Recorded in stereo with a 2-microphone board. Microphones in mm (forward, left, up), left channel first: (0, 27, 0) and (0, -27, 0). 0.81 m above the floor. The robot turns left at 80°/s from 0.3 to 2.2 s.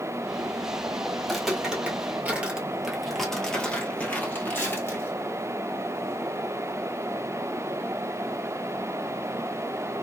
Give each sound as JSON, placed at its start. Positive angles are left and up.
{"t": 1.2, "sound": "footsteps", "side_deg": 10, "distance_m": 1.2}